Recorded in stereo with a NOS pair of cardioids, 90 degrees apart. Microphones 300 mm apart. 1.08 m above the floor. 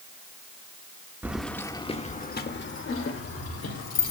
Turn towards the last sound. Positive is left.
turn(degrees=55)